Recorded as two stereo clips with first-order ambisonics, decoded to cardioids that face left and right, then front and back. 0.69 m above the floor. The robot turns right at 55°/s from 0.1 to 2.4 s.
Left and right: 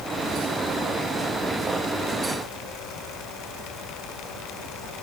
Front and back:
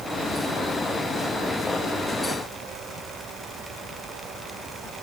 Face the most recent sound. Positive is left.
No sound to turn to.